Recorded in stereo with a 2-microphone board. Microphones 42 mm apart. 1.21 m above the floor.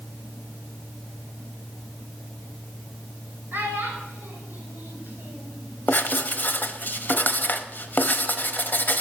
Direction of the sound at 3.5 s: 60° right (ahead or behind).